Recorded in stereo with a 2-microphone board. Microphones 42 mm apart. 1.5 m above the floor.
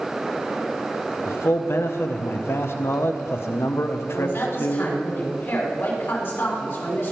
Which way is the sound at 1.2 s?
60° left (ahead or behind).